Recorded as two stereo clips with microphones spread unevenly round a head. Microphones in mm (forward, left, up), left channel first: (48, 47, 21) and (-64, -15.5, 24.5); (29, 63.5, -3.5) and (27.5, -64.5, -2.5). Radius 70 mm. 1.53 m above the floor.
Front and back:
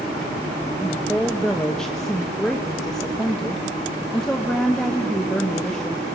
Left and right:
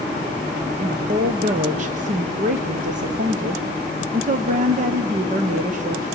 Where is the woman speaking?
60° right, 1.0 m.